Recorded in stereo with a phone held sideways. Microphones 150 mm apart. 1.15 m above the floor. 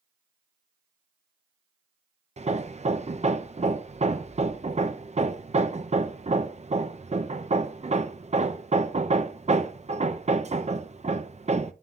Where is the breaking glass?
No breaking glass in this recording.